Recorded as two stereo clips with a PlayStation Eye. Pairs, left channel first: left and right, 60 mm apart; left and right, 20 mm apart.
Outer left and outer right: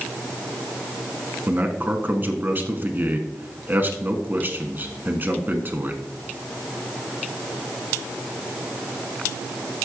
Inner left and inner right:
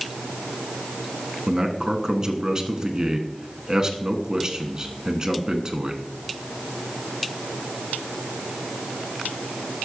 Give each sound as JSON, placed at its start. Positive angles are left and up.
{"t": 1.5, "sound": "a man speaking", "side_deg": -35, "distance_m": 1.3}